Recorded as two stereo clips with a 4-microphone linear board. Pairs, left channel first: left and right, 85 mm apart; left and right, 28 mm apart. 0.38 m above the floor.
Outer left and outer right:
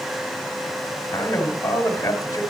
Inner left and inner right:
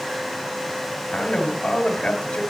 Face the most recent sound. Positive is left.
turn(degrees=35)  # may be behind; listen again after turning